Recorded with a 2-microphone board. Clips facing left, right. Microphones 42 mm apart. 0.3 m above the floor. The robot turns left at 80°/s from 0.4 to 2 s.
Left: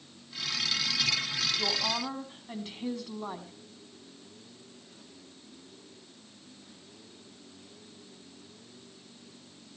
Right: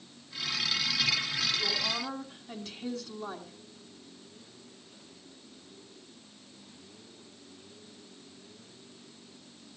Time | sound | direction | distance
1.6 | a woman speaking | 50° left | 3 m